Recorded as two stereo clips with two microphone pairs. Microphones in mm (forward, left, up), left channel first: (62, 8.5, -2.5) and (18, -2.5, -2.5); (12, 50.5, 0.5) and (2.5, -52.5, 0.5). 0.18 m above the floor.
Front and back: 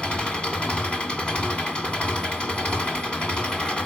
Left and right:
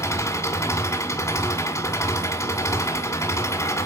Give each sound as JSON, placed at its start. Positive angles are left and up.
{"t": 0.0, "sound": "an engine running", "azimuth_deg": 60, "distance_m": 1.1}